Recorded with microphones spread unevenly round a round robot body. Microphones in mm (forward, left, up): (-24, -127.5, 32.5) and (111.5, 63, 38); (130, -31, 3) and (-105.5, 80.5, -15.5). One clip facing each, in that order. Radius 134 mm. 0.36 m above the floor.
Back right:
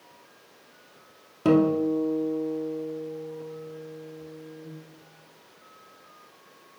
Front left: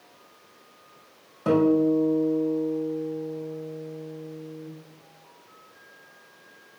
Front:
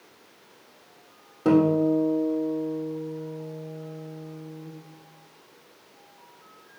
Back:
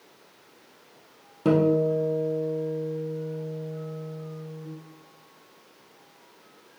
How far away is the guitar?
About 2 m.